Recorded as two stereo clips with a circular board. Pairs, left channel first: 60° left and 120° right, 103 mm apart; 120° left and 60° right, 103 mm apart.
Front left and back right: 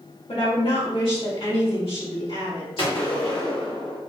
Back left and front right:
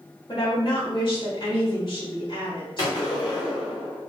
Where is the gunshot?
75° left, 1.7 m.